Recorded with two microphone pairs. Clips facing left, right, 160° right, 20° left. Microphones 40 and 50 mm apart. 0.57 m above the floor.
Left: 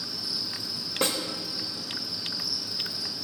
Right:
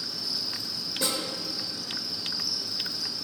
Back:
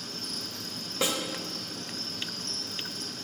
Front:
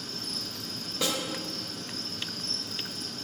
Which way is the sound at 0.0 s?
160° left.